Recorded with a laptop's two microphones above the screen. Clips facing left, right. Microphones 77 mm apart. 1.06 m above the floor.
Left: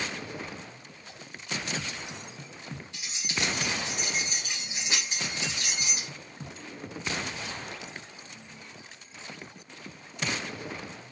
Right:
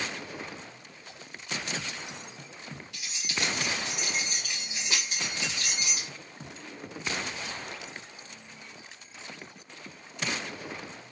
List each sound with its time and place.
2.9 s keys jangling: 30° left (ahead or behind), 2.5 m